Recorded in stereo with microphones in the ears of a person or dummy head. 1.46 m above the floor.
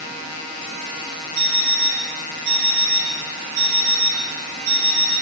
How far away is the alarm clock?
About 8.5 m.